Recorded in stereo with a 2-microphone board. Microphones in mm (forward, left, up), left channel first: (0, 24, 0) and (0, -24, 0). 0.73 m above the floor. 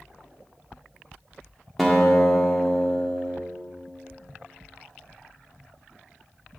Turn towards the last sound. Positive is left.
turn(degrees=0)  # may be behind; listen again after turning